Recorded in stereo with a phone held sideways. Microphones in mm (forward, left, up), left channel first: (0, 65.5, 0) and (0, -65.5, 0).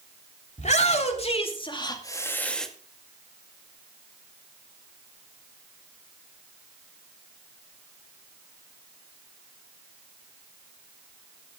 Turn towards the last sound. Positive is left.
turn(degrees=0)  # may be behind; listen again after turning